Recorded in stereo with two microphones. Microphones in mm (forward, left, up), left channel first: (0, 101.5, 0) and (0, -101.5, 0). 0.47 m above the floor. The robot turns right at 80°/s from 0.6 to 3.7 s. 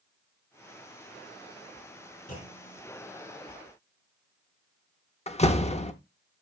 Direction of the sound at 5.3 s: 30° left (ahead or behind).